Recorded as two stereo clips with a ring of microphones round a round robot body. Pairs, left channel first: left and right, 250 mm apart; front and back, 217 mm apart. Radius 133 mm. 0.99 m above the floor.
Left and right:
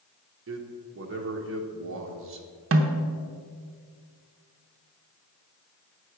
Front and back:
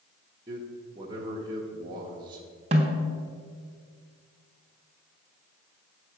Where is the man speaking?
110° right, 0.9 m.